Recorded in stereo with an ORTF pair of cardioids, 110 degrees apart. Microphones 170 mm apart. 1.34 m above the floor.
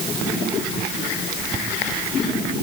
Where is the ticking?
I don't hear ticking.